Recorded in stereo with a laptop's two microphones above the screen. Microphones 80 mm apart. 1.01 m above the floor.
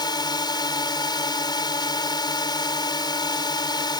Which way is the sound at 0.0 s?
60° left (ahead or behind).